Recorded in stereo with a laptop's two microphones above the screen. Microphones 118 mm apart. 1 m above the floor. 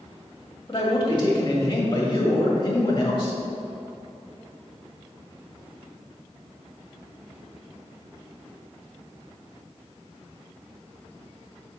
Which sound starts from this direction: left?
A man speaking, at 0.7 s.